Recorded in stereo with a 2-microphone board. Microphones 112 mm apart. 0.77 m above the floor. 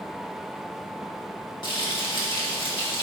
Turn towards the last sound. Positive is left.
turn(degrees=45)  # may be behind; listen again after turning